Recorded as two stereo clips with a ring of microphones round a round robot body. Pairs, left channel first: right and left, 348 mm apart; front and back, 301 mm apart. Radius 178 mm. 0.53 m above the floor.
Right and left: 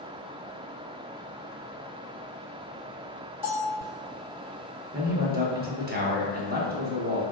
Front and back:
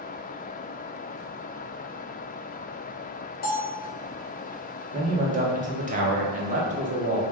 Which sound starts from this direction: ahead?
A bell, at 3.4 s.